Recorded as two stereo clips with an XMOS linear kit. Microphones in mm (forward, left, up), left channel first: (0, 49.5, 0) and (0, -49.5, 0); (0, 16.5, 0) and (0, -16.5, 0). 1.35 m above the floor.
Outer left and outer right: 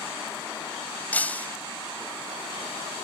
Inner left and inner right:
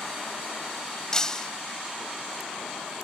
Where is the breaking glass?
15° left (ahead or behind).